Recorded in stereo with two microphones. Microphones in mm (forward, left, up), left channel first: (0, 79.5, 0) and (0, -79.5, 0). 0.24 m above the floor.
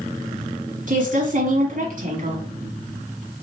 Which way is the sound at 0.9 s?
55° right (ahead or behind).